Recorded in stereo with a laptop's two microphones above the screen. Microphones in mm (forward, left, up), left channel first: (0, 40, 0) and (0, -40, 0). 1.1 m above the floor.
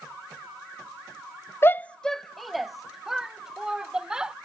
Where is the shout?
30° left (ahead or behind); by 4.3 s 10° right (ahead or behind).